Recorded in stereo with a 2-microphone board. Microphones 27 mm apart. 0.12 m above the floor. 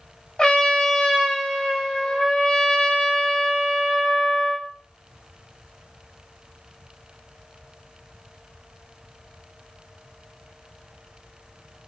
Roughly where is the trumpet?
Left.